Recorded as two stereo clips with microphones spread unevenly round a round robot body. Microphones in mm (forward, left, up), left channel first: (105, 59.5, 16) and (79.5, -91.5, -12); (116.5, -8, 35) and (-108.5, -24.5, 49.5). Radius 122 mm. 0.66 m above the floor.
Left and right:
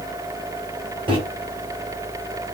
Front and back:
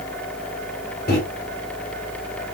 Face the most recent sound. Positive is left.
turn(degrees=-45)